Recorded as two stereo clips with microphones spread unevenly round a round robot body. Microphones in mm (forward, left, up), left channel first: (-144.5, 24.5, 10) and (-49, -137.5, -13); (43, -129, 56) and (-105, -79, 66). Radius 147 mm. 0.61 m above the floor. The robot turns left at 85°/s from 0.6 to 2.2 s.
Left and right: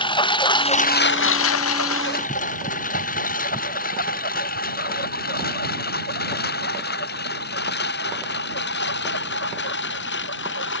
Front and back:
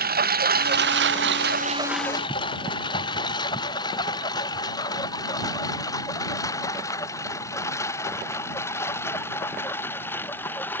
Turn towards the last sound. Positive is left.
turn(degrees=65)